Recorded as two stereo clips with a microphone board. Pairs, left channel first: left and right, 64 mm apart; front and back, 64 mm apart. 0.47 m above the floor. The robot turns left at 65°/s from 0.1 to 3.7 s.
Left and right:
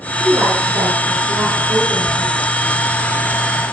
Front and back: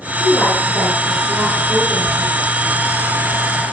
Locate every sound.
0.2 s a woman speaking: 35° right, 9.5 m; by 2.4 s straight behind, 9.5 m